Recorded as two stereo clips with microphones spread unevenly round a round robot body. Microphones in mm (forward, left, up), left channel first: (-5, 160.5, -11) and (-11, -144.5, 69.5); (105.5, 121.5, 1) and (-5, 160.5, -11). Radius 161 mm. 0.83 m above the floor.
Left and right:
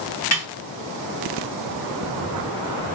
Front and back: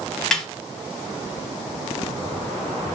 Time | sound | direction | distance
0.3 | a snare drum | 70° left | 1.2 m